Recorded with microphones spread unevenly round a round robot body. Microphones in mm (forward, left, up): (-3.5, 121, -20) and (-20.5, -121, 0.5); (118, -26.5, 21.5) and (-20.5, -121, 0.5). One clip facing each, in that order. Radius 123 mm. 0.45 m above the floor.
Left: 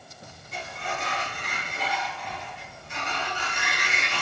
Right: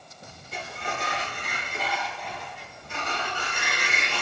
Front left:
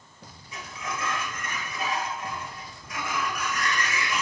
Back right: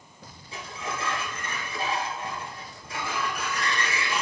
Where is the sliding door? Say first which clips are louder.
Even, back right 1 dB; 95° right, 2 m.